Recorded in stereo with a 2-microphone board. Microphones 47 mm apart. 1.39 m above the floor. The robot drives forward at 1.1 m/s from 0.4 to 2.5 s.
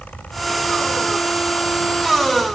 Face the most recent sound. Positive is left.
No sound to turn to.